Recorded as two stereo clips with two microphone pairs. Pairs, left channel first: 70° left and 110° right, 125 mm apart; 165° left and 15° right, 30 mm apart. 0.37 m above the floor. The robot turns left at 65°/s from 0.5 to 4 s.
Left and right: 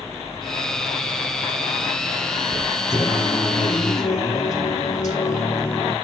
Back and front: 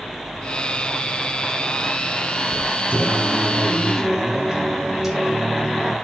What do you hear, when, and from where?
2.9 s singing: 135° left, 3.5 m; by 6.0 s 65° left, 3.5 m